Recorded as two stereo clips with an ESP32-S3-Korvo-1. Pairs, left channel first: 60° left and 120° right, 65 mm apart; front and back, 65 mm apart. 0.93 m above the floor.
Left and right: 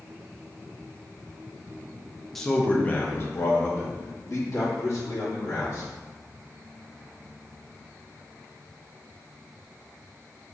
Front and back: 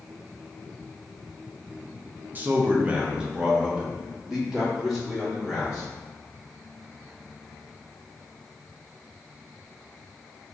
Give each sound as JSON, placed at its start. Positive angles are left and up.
{"t": 2.4, "sound": "a man speaking", "azimuth_deg": 145, "distance_m": 0.5}